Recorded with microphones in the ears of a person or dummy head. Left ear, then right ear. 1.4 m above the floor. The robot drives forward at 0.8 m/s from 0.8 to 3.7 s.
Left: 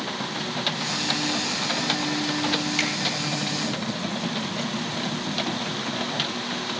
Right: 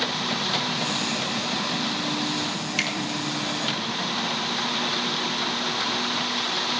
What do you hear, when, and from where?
2.8 s a finger snap: 15° right (ahead or behind), 3 m